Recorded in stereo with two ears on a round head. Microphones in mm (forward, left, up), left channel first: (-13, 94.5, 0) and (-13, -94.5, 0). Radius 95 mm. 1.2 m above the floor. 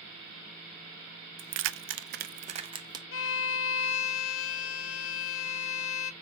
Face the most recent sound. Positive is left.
turn(degrees=70)  # may be behind; listen again after turning